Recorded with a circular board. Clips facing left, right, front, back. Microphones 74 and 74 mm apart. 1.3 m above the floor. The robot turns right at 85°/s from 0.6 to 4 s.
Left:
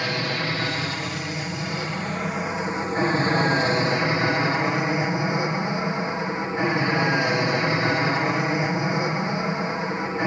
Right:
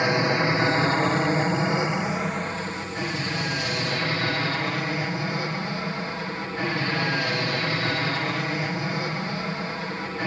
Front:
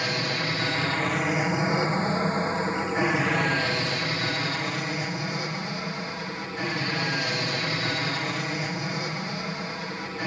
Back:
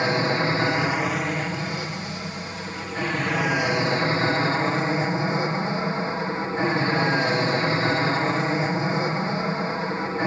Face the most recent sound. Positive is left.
turn(degrees=145)